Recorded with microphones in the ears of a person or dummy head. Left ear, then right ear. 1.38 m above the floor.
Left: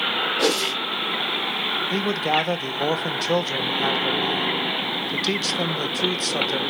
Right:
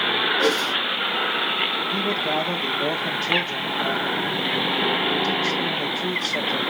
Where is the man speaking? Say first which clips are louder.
Left 1 dB; 65° left (ahead or behind), 0.7 m.